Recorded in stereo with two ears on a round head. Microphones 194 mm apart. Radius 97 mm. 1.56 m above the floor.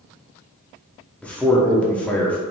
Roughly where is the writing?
I don't hear writing.